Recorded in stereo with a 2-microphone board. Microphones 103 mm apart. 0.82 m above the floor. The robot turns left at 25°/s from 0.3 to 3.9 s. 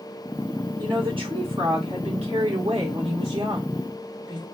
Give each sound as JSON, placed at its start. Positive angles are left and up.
{"t": 0.8, "sound": "a woman speaking", "azimuth_deg": -55, "distance_m": 2.5}